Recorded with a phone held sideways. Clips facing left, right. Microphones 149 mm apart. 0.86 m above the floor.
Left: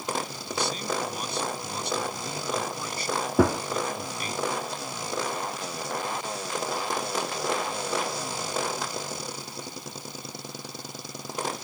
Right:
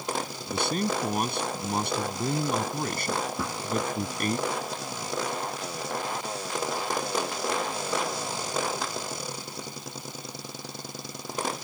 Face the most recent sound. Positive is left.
turn(degrees=75)  # may be behind; listen again after turning